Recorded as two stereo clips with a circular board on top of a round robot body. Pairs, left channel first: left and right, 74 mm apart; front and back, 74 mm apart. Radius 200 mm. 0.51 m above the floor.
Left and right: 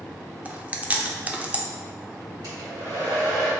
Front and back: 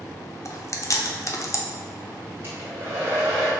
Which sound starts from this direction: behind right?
A hair dryer, at 2.4 s.